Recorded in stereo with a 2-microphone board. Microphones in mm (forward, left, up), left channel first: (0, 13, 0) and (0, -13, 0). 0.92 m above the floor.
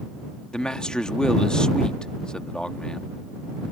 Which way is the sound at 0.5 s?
30° left (ahead or behind).